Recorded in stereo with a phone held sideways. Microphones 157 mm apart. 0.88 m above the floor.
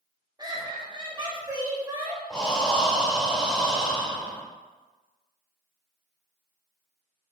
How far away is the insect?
I don't hear an insect.